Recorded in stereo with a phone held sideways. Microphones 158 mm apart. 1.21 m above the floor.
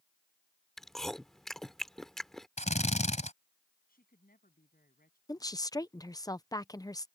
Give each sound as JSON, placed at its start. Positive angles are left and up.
{"t": 0.8, "sound": "chewing", "side_deg": 0}
{"t": 2.6, "sound": "a drill", "side_deg": 45}
{"t": 3.9, "sound": "a woman speaking", "side_deg": 65}
{"t": 5.3, "sound": "a woman speaking", "side_deg": 20}